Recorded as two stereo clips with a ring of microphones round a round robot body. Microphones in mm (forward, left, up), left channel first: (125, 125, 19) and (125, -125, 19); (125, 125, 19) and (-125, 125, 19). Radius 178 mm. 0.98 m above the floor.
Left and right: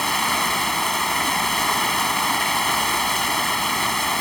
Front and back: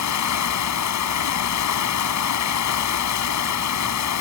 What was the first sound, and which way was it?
Running water, straight ahead.